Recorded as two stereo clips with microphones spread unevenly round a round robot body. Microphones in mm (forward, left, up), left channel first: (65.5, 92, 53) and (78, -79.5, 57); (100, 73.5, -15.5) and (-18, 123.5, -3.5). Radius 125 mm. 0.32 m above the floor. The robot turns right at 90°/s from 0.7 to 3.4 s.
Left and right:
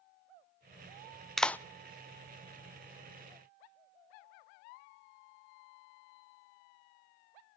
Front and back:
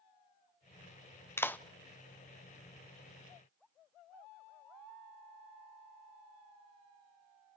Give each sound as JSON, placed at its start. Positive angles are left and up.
{"t": 1.4, "sound": "a clap", "azimuth_deg": 10, "distance_m": 0.7}